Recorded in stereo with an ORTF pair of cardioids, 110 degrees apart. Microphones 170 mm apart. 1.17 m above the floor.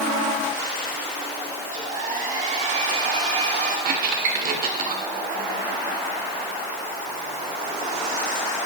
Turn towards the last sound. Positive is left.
turn(degrees=-60)